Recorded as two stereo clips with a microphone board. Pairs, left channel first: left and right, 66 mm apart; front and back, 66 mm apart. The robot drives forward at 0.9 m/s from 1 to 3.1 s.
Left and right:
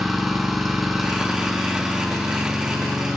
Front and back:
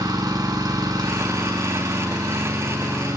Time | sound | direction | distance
0.0 | an engine running | 175° right | 2.0 m